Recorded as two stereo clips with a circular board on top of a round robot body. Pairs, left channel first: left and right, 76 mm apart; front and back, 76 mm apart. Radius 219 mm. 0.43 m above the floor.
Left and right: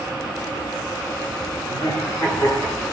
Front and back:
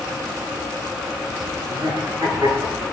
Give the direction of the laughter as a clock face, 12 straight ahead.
7 o'clock.